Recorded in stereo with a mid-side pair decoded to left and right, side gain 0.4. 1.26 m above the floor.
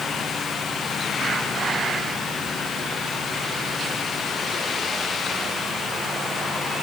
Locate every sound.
Only background noise.